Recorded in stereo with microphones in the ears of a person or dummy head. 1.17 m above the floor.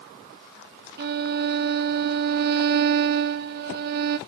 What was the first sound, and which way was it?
A violin, 55° right (ahead or behind).